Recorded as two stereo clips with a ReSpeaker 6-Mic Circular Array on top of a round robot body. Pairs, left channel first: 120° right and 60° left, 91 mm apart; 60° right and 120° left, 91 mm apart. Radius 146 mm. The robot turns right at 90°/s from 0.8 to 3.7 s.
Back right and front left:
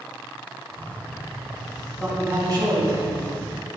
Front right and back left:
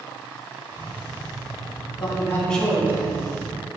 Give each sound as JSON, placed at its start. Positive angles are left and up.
{"t": 1.9, "sound": "a man speaking", "azimuth_deg": -40, "distance_m": 3.0}